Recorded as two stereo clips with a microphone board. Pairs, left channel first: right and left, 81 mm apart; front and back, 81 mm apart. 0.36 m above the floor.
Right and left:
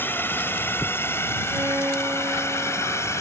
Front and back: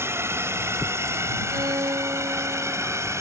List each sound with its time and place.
0.0 s a drone: 140° right; by 3.2 s 135° right
1.5 s a violin: 150° left